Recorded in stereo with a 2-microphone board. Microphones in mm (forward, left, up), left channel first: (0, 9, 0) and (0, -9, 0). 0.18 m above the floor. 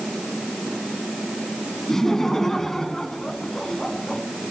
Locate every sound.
1.9 s laughter: 25° left (ahead or behind), 1.7 m